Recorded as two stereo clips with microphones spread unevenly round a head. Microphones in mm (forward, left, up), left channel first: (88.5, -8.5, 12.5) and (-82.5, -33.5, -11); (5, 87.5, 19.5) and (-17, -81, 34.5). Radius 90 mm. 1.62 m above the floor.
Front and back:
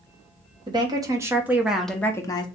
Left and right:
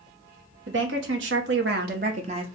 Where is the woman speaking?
105° right, 1.2 m; by 2.5 s 45° right, 0.7 m.